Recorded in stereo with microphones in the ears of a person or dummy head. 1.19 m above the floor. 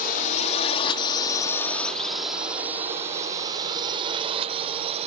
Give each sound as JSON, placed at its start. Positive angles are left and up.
{"t": 0.0, "sound": "a drone", "side_deg": 45}